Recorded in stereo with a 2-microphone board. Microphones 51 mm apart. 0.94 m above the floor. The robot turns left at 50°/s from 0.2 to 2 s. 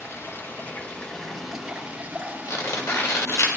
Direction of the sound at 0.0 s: 65° left.